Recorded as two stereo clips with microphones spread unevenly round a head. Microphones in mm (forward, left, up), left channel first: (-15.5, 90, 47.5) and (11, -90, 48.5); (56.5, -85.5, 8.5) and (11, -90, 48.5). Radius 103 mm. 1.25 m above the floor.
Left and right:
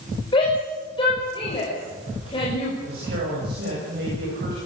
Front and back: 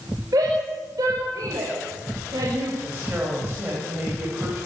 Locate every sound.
0.3 s a shout: 165° left, 6 m
2.9 s a man speaking: 120° right, 8.5 m